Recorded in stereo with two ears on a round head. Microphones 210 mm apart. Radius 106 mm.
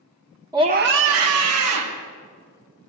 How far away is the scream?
About 0.5 m.